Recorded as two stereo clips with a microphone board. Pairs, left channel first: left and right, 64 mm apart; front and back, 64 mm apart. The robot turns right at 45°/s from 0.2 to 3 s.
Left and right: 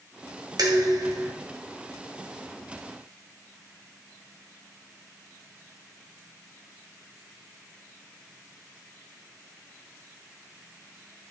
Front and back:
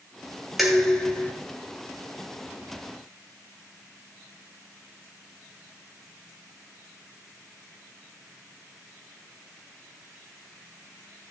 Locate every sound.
0.6 s dishes clattering: 90° right, 2.5 m; by 1.3 s 60° right, 2.5 m